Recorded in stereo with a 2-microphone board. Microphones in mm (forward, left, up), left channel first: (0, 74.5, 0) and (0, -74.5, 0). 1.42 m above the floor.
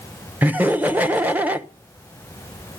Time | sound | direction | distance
0.4 | laughter | 10° right (ahead or behind) | 1.1 m